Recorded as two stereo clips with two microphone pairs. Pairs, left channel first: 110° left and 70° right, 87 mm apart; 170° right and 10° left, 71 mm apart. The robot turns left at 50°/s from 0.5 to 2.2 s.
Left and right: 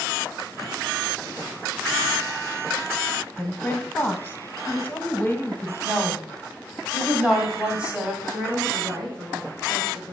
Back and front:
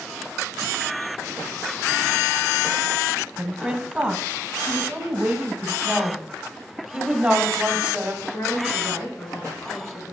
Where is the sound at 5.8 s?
20° right, 1.5 m.